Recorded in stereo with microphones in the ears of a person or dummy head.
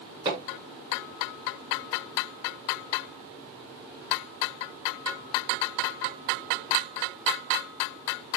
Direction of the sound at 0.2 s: 30° right (ahead or behind).